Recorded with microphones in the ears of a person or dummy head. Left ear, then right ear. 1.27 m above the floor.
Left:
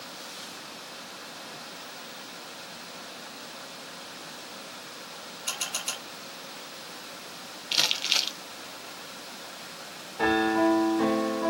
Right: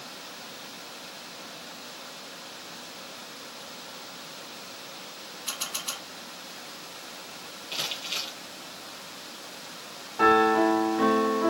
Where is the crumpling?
40° left (ahead or behind), 0.6 m.